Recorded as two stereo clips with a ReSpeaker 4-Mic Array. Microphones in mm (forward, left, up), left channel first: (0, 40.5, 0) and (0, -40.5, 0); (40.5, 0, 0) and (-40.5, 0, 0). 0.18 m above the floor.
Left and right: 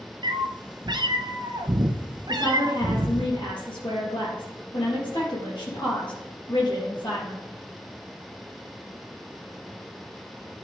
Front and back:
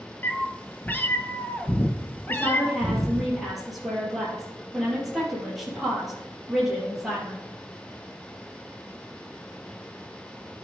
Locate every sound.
0.2 s a cat meowing: 65° right, 0.7 m
2.3 s a woman speaking: 90° left, 4 m